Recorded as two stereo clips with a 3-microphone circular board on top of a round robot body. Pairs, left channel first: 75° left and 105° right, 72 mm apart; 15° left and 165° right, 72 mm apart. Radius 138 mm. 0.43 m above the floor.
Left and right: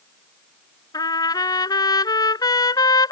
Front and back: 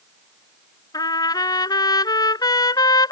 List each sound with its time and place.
0.9 s a trumpet: 45° left